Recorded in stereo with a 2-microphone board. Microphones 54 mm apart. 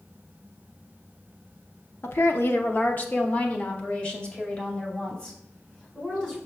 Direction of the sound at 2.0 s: 40° left (ahead or behind).